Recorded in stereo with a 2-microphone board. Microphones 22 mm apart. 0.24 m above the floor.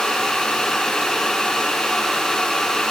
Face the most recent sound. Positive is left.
No sound to turn to.